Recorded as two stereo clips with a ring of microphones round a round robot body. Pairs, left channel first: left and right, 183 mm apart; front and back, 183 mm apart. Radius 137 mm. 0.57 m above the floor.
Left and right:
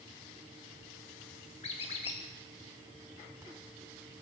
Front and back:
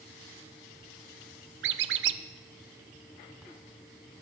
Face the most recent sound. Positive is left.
turn(degrees=160)